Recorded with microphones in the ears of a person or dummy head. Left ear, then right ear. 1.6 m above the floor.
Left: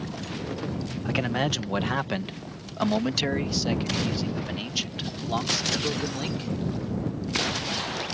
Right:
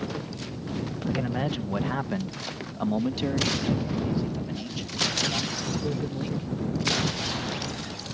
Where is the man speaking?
65° left (ahead or behind); by 6.5 s 50° left (ahead or behind).